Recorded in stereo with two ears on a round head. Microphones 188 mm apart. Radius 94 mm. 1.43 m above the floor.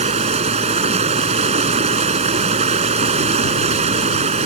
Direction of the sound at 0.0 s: 30° right (ahead or behind).